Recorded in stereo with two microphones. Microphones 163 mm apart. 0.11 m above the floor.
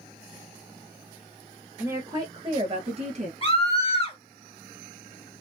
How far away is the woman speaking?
About 1.4 m.